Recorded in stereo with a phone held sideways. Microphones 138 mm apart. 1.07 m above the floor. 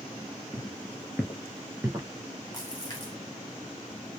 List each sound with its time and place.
0.5 s footsteps: 25° left (ahead or behind), 1.1 m; by 2.1 s 25° right (ahead or behind), 1.1 m
2.5 s a splash: 30° left (ahead or behind), 1.5 m